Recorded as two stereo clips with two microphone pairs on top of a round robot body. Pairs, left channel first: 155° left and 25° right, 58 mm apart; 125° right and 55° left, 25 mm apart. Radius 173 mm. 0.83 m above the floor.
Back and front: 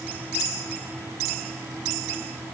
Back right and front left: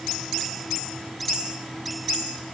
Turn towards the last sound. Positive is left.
No sound to turn to.